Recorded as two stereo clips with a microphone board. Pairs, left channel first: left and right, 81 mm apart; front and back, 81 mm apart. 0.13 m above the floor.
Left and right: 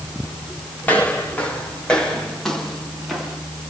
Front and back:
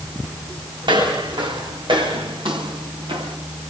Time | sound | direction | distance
0.8 | footsteps | 160° left | 6.5 m